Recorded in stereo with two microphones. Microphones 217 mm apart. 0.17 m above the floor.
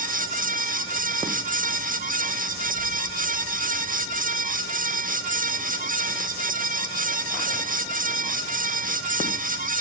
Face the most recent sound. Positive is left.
No sound to turn to.